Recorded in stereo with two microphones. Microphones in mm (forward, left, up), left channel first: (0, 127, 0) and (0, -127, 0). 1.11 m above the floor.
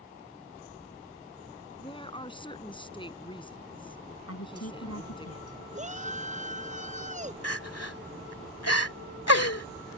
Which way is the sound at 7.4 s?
70° left (ahead or behind).